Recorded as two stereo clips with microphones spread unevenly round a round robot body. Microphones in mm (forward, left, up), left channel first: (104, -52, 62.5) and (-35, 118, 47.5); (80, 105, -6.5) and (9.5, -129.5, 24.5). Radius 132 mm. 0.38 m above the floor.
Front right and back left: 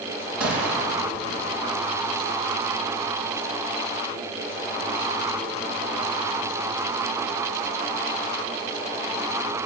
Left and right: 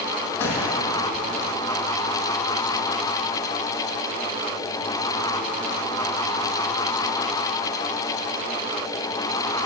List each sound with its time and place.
0.4 s a gunshot: 155° left, 5.5 m